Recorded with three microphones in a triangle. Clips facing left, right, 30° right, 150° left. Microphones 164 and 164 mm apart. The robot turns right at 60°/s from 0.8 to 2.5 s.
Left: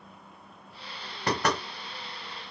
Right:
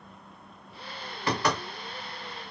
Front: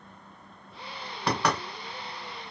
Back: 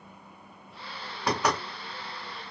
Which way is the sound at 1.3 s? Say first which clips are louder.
Even, even; 65° left.